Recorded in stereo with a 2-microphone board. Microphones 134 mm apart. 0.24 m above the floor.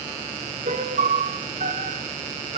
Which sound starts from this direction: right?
A piano, at 0.7 s.